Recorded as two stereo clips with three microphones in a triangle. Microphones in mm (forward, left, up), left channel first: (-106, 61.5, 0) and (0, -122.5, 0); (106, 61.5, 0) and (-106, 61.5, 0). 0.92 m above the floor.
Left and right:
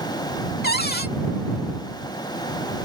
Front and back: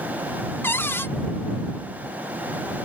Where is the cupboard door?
80° left.